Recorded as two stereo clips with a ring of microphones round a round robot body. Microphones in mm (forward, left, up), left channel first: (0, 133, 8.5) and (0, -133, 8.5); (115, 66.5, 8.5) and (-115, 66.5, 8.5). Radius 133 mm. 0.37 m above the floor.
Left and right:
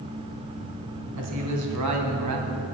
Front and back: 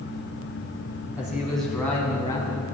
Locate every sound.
1.1 s a man speaking: 95° right, 3 m; by 2.6 s 70° right, 2 m